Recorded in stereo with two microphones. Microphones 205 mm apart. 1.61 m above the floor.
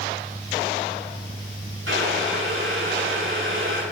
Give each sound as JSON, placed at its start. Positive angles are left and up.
{"t": 1.9, "sound": "boiling", "side_deg": -80, "distance_m": 7.5}